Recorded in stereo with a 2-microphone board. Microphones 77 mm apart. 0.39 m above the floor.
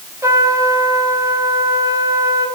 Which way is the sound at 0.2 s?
40° right (ahead or behind).